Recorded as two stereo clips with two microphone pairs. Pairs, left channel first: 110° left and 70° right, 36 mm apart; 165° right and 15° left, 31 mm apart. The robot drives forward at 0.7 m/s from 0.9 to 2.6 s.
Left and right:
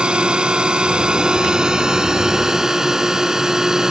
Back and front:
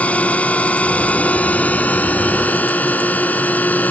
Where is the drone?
130° right; by 3.9 s 145° right.